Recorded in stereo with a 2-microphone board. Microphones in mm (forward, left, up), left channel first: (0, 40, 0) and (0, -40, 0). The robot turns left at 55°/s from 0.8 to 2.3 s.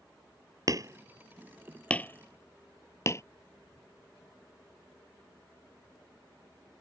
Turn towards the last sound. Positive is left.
turn(degrees=35)  # may be behind; listen again after turning